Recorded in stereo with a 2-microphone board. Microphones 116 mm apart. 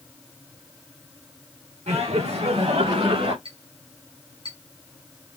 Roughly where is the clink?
Right.